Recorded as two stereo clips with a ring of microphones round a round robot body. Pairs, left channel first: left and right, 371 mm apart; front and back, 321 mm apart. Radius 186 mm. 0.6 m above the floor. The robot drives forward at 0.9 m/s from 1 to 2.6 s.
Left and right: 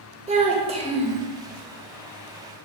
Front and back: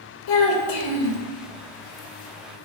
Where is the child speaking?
15° right, 1.2 m; by 1.2 s 20° right, 1.0 m.